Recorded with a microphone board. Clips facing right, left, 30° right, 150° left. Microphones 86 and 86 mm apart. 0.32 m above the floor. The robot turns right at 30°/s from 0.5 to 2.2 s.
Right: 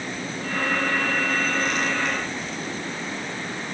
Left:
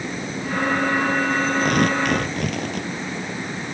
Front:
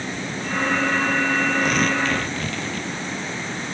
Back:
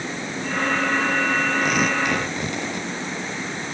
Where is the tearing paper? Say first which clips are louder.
Left 5 dB, even; 60° left; by 2.9 s 80° left.